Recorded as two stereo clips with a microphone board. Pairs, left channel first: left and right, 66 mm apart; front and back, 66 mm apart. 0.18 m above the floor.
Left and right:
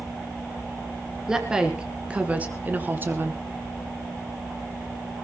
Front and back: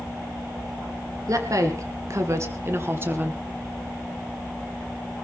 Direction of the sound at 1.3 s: 170° right.